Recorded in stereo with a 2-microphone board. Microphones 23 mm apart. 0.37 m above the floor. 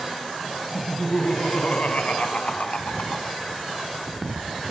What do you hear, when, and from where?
0.7 s laughter: 60° left (ahead or behind), 4 m